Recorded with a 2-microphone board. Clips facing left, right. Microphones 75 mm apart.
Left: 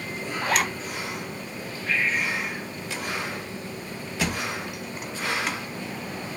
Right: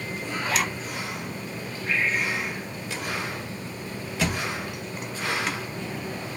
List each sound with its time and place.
0.4 s a zipper: 50° left (ahead or behind), 0.5 m
1.9 s breathing: 25° right (ahead or behind), 1.5 m
4.2 s a thud: 5° left (ahead or behind), 0.6 m